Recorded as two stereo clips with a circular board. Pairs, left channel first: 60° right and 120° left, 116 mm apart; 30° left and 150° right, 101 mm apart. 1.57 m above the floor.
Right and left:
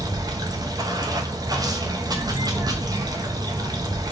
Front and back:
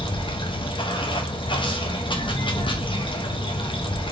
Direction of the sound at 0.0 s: 65° left.